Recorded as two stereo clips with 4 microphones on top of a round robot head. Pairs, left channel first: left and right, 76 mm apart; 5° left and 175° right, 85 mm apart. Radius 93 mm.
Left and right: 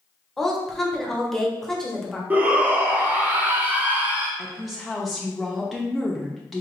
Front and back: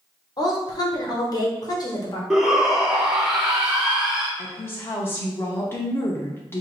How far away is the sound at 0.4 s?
About 1.2 m.